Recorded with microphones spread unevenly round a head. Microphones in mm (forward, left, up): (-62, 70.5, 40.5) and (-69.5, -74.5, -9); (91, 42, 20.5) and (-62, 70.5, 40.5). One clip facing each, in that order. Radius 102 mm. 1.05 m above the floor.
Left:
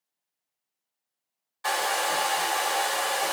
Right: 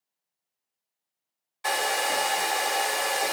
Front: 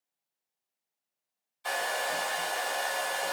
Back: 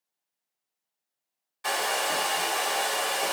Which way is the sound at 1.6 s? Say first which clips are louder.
Even, back 3 dB; 175° right.